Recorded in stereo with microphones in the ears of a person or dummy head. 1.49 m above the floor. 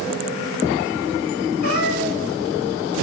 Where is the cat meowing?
50° left (ahead or behind), 4.5 m.